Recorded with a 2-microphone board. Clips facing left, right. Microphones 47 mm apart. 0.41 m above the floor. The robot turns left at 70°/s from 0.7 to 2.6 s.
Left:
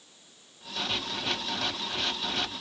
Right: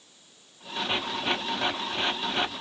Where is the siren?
No siren in this recording.